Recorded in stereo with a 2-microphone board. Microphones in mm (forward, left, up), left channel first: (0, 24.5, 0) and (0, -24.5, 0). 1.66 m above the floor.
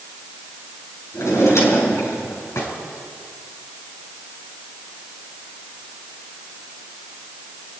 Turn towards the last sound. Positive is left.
turn(degrees=70)  # may be behind; listen again after turning